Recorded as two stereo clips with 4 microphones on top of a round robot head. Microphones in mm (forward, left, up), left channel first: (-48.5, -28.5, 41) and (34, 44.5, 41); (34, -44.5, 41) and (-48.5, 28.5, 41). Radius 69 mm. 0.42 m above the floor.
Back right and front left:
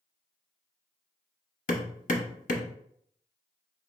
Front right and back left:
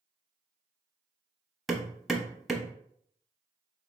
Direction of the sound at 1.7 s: 130° right.